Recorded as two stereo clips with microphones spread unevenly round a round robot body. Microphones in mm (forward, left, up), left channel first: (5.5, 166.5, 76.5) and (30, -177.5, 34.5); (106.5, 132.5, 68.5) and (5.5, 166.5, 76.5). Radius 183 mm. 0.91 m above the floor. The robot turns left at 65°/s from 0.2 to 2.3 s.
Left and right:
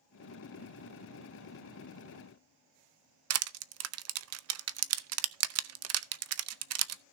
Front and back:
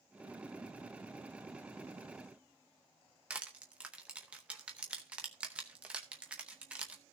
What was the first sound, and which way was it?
Crushing, 115° right.